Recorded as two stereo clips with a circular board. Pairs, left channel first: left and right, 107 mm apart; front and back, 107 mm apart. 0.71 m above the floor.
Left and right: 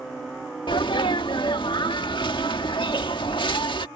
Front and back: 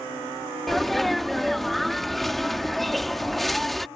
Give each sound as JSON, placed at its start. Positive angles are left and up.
{"t": 0.7, "sound": "a sneeze", "azimuth_deg": 90}